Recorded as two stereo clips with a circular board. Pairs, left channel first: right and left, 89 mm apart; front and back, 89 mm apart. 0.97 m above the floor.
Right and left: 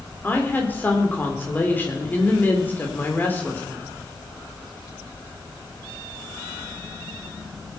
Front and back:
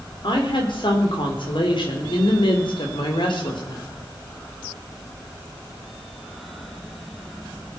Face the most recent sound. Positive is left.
turn(degrees=-25)